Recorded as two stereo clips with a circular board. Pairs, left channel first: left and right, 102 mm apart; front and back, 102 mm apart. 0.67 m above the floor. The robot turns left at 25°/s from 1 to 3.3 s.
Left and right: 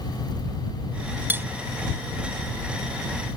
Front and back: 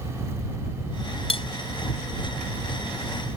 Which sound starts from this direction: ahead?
Cutlery clinking, at 1.3 s.